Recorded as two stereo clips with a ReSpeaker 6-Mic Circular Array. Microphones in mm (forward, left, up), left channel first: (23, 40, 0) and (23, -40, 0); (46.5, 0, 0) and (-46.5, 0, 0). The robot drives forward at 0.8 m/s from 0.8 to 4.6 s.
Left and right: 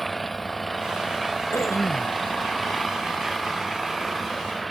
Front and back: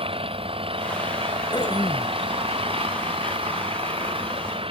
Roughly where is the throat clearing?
Ahead left.